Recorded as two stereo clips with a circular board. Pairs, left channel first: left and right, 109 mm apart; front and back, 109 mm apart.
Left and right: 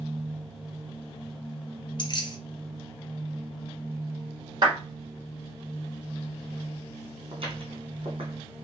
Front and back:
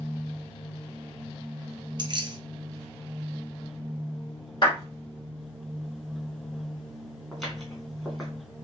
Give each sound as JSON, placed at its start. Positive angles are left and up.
{"t": 2.0, "sound": "keys jangling", "azimuth_deg": 135, "distance_m": 0.7}
{"t": 4.6, "sound": "a clap", "azimuth_deg": -40, "distance_m": 2.5}
{"t": 7.3, "sound": "footsteps", "azimuth_deg": -90, "distance_m": 1.8}